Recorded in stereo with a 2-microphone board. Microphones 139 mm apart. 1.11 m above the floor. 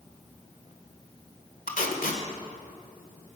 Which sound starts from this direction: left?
Tape being pulled, at 1.7 s.